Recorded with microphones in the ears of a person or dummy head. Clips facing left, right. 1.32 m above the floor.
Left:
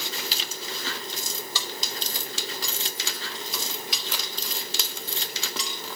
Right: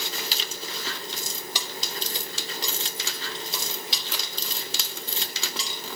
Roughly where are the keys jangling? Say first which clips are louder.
Even; centre.